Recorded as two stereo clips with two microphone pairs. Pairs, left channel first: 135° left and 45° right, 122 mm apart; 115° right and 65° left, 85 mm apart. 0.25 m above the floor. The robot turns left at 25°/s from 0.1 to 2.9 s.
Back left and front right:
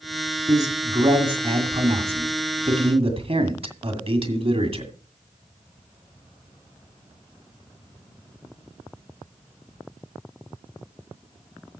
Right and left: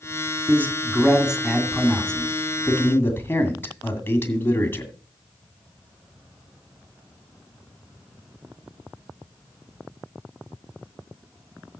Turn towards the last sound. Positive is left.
turn(degrees=-55)